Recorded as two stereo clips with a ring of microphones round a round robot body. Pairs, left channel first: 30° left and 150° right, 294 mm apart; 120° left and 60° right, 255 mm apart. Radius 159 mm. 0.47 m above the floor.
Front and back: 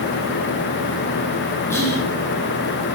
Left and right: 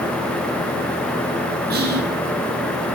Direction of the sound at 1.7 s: 45° right.